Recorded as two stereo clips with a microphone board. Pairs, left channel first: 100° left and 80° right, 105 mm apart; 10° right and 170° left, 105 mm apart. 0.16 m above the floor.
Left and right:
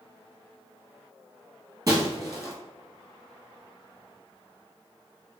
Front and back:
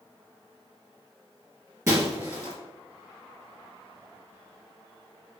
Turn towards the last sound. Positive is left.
turn(degrees=-130)